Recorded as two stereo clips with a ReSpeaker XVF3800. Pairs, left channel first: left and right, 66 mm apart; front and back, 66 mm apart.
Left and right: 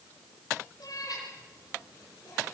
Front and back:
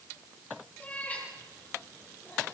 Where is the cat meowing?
65° left, 10 m.